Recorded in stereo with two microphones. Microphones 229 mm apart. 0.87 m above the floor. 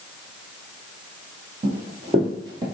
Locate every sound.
1.6 s running footsteps: 35° right (ahead or behind), 2.0 m; by 2.6 s 15° right (ahead or behind), 1.4 m